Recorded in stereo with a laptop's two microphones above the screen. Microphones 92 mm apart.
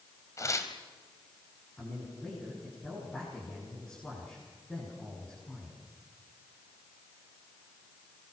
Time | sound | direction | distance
0.4 | tearing paper | 35° left (ahead or behind) | 1.5 m
1.8 | a man speaking | 15° left (ahead or behind) | 9.5 m